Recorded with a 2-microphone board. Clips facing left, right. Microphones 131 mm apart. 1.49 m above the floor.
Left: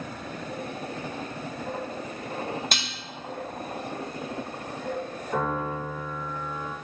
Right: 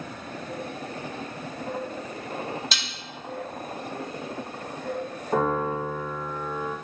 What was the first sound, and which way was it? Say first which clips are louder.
Dishes clattering: left 2 dB; 55° left (ahead or behind).